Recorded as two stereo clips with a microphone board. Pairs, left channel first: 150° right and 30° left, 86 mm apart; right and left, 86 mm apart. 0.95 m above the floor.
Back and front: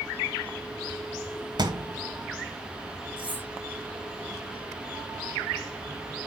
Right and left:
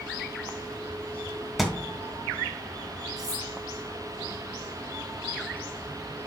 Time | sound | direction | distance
1.6 | a thud | 5° left | 2.5 m
3.2 | cutlery clinking | 45° left | 5.5 m